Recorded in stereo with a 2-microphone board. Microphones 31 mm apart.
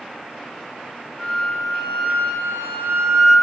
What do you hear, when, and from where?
1.2 s a flute: 90° left, 1.2 m